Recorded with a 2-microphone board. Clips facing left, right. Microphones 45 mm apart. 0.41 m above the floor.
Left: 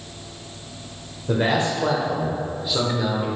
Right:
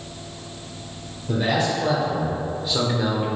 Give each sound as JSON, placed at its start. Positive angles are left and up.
{"t": 1.3, "sound": "a man speaking", "side_deg": 45, "distance_m": 1.4}